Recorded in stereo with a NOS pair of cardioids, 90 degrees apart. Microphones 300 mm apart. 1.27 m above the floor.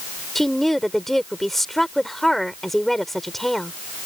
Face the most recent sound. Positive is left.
turn(degrees=0)